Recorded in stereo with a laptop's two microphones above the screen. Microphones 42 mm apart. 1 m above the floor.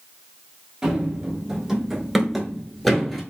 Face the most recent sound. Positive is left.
turn(degrees=5)  # may be behind; listen again after turning